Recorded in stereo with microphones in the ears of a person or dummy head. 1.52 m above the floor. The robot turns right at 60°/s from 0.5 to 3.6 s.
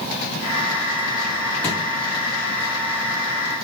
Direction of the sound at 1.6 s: 10° left (ahead or behind).